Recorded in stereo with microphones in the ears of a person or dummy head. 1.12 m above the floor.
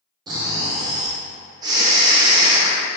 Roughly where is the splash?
No splash in this recording.